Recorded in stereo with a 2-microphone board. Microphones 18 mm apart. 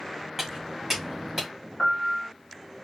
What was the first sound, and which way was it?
Footsteps, 15° right (ahead or behind).